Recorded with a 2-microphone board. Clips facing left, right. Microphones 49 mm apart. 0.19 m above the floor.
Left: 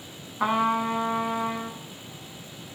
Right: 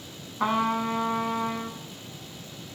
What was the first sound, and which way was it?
A trumpet, 10° left (ahead or behind).